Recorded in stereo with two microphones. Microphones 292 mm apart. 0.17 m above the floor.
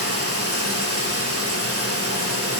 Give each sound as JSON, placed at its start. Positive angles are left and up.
{"t": 0.0, "sound": "running water", "side_deg": -55, "distance_m": 4.0}